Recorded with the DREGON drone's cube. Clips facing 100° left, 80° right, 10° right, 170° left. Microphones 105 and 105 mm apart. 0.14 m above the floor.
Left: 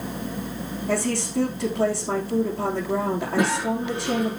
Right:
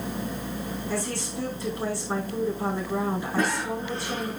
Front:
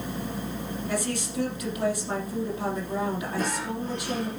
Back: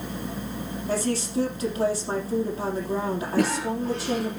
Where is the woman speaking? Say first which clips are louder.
Left 9 dB, back 5 dB; 120° left, 5 m.